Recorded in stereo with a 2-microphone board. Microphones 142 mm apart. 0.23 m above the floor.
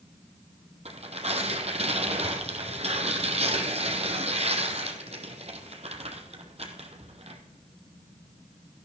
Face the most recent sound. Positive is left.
turn(degrees=-50)  # may be behind; listen again after turning